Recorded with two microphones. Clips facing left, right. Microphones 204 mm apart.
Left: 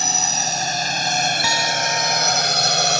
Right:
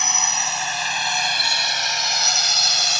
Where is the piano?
75° left (ahead or behind).